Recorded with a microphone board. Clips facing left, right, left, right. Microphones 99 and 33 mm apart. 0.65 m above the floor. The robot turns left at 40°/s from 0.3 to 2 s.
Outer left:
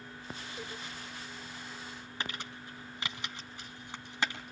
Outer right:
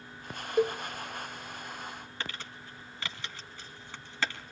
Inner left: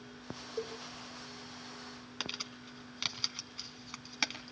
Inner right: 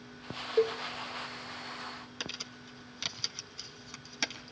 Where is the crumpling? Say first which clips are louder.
Outer left 2 dB, inner left 2 dB; 20° left (ahead or behind), 3 m.